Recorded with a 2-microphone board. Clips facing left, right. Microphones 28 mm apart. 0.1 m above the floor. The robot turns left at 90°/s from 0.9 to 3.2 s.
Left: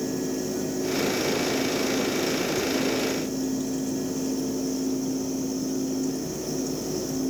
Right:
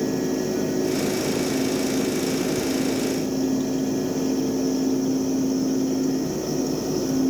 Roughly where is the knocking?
No knocking in this recording.